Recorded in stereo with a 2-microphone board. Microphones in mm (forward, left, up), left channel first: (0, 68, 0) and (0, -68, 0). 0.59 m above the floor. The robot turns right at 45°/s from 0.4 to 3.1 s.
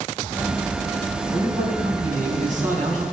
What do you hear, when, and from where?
1.3 s a man speaking: 135° right, 4.5 m; by 3.0 s 55° right, 4.5 m